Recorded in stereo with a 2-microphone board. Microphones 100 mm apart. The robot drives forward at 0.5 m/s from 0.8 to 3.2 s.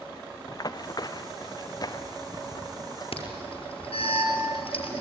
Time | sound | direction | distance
0.5 | running footsteps | 40° left (ahead or behind) | 1.0 m
3.1 | an alarm | 75° left (ahead or behind) | 5 m